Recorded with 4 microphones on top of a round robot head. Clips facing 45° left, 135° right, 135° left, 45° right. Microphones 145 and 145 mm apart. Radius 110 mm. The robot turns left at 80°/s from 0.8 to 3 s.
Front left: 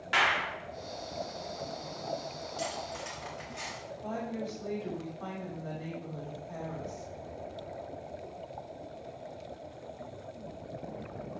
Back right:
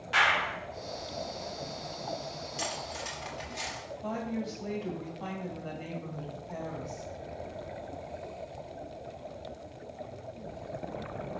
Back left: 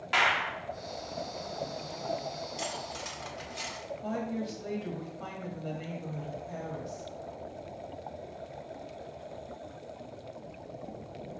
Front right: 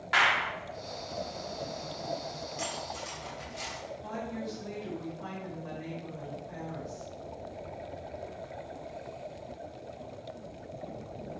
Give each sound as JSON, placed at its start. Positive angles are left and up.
{"t": 0.1, "sound": "a clap", "azimuth_deg": 65, "distance_m": 1.7}
{"t": 2.6, "sound": "cutlery clinking", "azimuth_deg": -160, "distance_m": 1.5}
{"t": 4.0, "sound": "a woman speaking", "azimuth_deg": 145, "distance_m": 1.9}